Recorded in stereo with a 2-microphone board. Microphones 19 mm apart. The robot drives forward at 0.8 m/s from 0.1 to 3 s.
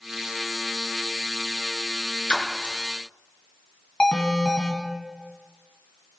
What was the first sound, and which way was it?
A splash, 55° left (ahead or behind).